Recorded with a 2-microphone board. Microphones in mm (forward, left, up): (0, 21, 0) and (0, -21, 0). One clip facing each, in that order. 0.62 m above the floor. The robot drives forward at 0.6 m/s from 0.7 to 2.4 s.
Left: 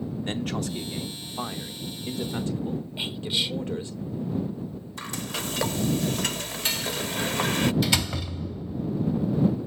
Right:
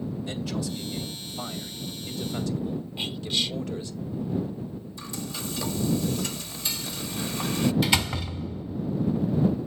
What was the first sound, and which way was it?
A man speaking, 55° left (ahead or behind).